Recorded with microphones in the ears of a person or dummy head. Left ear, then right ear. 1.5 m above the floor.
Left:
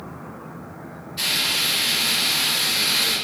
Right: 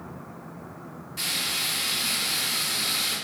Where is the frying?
45° right (ahead or behind), 1.6 m.